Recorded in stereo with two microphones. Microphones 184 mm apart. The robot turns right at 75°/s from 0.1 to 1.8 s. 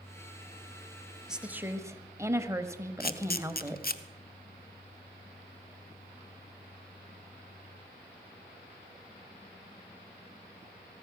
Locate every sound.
1.3 s a woman speaking: 5° right (ahead or behind), 1.1 m; by 3.8 s 15° right (ahead or behind), 1.1 m
3.0 s a camera shutter: 55° left (ahead or behind), 0.8 m